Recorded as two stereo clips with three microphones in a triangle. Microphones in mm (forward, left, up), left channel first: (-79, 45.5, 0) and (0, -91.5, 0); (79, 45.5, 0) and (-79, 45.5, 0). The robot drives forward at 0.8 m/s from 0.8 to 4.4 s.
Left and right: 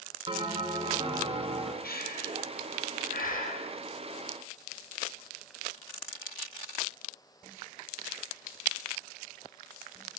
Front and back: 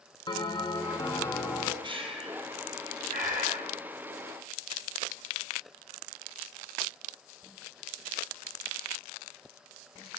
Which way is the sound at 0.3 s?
40° right.